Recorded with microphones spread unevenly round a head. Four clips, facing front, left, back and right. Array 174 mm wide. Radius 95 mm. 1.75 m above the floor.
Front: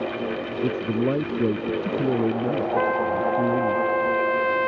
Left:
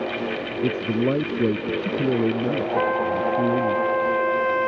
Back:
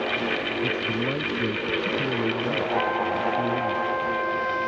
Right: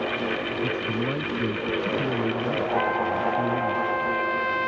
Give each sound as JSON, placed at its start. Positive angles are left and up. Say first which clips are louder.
{"t": 0.6, "sound": "a man speaking", "louder": "left 9 dB, front 8 dB", "azimuth_deg": 60}
{"t": 2.8, "sound": "a trumpet", "louder": "left 4 dB, front 3 dB", "azimuth_deg": 55}